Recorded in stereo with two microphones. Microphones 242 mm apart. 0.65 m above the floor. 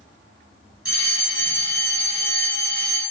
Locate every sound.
0.8 s a fire alarm: 35° right (ahead or behind), 1.8 m